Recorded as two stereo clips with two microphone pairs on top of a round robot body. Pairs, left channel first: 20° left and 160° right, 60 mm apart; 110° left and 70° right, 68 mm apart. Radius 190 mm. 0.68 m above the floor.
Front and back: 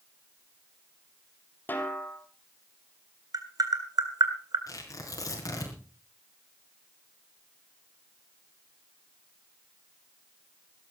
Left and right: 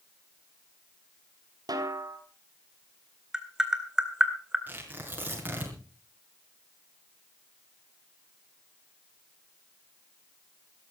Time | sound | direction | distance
1.7 | a snare drum | 40° right | 2.5 m
3.3 | tapping | 150° right | 2 m
4.7 | tearing paper | 5° right | 5 m